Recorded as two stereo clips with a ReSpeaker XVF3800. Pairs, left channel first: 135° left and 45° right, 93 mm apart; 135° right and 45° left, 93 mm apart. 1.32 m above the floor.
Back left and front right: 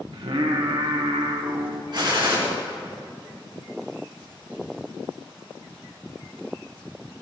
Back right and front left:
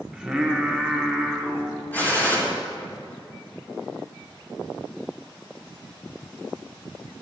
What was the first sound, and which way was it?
Singing, 40° right.